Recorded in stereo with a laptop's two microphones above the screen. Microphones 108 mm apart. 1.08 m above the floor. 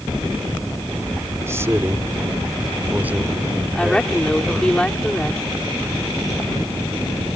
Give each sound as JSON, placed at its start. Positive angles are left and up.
{"t": 1.4, "sound": "a man speaking", "side_deg": -25}
{"t": 3.8, "sound": "a woman speaking", "side_deg": 10}